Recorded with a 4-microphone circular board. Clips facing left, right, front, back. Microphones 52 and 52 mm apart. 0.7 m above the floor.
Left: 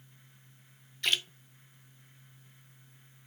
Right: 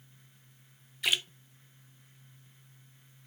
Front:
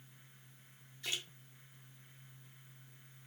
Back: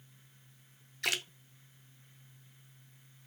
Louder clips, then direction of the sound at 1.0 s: Even, back 8 dB; 170° right.